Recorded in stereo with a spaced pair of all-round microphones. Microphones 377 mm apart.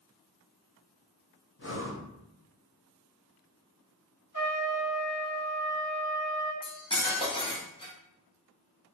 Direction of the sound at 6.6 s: 15° left (ahead or behind).